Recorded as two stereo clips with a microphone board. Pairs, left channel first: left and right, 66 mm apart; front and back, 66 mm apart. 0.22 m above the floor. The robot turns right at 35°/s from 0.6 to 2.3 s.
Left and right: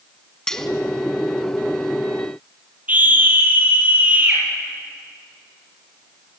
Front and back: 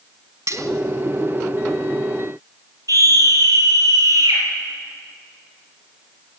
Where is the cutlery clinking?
170° left, 0.9 m.